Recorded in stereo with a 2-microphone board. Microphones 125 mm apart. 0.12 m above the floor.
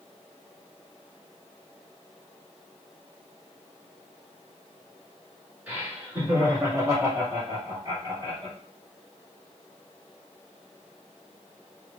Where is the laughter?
10° right (ahead or behind), 1.5 m; by 8.6 s 40° right (ahead or behind), 1.9 m.